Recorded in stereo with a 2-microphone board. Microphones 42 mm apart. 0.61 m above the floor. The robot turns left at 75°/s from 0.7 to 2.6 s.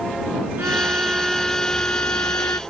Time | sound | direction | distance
0.6 | a violin | 125° right | ?